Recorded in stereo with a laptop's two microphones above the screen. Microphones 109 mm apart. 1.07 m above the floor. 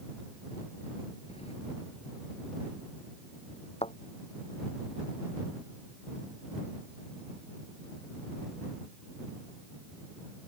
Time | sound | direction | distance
1.3 | keys jangling | 75° left (ahead or behind) | ?
3.8 | a thud | 80° left | ?